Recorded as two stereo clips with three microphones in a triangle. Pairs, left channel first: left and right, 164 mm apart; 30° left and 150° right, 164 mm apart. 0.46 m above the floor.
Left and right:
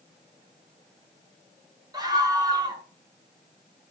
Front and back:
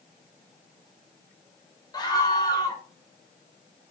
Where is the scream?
30° right, 2 m.